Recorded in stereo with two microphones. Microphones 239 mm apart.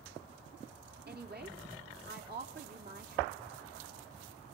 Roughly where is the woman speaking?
Right.